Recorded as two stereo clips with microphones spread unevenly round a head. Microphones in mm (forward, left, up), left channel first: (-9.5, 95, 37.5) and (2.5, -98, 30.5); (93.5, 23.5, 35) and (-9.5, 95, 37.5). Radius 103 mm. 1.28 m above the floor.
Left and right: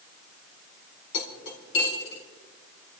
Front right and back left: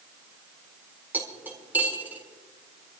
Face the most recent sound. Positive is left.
turn(degrees=70)